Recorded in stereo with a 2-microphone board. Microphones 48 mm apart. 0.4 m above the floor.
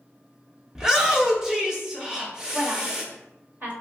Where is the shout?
10° right (ahead or behind), 0.8 m.